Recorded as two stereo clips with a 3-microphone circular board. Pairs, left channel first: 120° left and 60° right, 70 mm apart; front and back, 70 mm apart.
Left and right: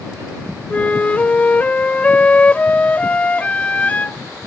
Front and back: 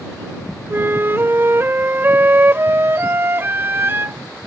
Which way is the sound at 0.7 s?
170° left.